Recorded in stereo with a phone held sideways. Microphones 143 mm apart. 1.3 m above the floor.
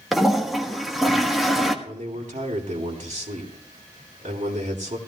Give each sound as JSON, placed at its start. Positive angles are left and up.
{"t": 0.1, "sound": "a toilet flushing", "side_deg": 0, "distance_m": 1.3}
{"t": 1.9, "sound": "a man speaking", "side_deg": -55, "distance_m": 3.5}